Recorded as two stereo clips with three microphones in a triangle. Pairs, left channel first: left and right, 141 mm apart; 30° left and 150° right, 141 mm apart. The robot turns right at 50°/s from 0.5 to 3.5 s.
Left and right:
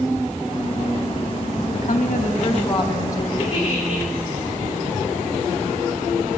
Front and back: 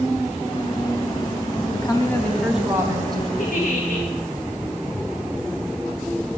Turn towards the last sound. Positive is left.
turn(degrees=40)